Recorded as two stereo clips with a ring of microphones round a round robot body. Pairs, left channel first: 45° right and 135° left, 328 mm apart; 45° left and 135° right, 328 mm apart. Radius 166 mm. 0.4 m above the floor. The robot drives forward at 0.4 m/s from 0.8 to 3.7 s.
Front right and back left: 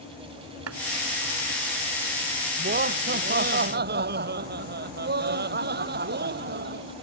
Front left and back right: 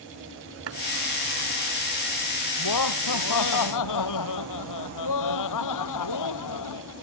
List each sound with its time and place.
0.7 s chopping: straight behind
2.6 s laughter: 75° left